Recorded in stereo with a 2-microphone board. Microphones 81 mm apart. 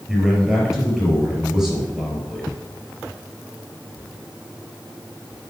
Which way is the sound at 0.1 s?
5° right (ahead or behind).